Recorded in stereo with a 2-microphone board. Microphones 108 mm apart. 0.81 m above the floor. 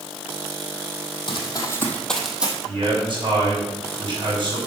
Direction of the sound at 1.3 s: 45° left (ahead or behind).